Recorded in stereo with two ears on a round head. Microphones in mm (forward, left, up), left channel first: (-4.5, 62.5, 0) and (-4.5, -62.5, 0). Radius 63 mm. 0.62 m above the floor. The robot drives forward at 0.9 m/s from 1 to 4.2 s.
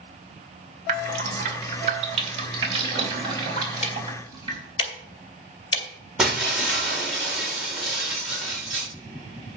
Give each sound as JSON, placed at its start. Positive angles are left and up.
{"t": 0.9, "sound": "dripping", "side_deg": -60, "distance_m": 2.5}
{"t": 3.8, "sound": "ticking", "side_deg": 50, "distance_m": 2.0}
{"t": 6.2, "sound": "breaking glass", "side_deg": -5, "distance_m": 4.5}